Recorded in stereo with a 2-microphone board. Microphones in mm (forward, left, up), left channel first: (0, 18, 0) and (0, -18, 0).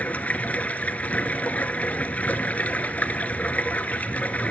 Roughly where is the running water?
Left.